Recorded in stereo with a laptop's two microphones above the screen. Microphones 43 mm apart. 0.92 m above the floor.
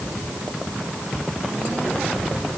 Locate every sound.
Only background noise.